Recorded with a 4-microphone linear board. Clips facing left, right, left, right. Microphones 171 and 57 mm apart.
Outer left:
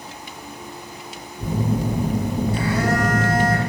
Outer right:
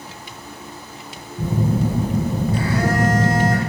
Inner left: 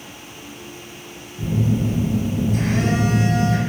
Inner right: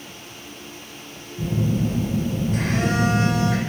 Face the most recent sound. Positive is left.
turn(degrees=-55)  # may be behind; listen again after turning